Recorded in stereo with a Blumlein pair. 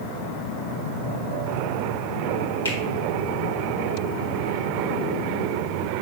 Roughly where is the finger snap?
Left.